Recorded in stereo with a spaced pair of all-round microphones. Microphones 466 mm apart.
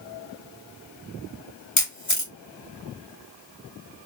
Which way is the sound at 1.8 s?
40° left (ahead or behind).